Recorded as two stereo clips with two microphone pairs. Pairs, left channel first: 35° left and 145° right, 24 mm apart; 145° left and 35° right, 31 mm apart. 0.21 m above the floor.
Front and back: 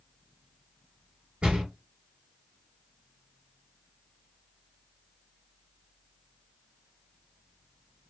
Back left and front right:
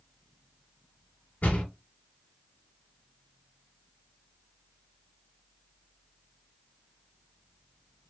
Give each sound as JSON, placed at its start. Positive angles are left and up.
{"t": 1.4, "sound": "a door slam", "azimuth_deg": 170, "distance_m": 2.0}